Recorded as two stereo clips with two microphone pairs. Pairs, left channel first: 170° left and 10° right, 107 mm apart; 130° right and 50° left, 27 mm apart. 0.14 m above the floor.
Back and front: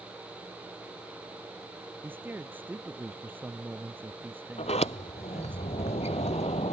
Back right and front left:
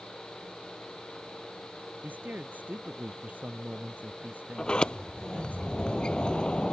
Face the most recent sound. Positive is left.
turn(degrees=175)